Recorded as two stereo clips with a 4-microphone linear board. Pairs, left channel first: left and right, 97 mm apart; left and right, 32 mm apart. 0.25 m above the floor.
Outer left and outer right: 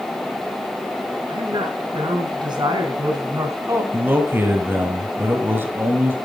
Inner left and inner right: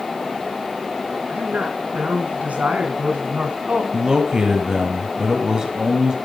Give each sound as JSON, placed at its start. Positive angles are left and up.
{"t": 1.3, "sound": "a woman speaking", "side_deg": -60, "distance_m": 4.5}
{"t": 3.9, "sound": "a man speaking", "side_deg": -25, "distance_m": 1.5}